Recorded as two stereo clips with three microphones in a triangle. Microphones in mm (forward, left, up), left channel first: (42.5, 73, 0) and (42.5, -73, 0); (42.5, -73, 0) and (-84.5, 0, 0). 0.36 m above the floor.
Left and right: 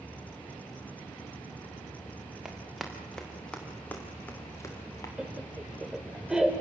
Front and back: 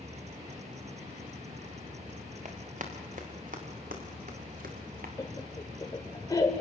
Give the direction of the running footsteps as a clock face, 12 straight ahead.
6 o'clock.